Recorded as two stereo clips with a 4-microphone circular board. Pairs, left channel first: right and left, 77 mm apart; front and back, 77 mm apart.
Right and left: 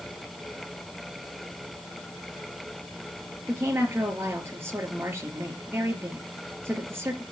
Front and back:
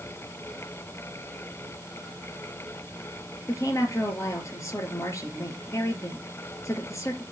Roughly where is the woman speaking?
Ahead left.